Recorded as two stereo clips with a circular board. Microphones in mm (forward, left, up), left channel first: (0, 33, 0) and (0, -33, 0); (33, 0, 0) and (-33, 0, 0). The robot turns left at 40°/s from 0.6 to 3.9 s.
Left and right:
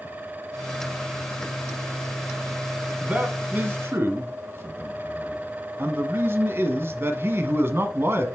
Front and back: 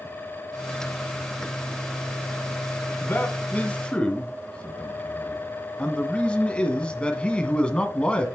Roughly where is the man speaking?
Ahead right.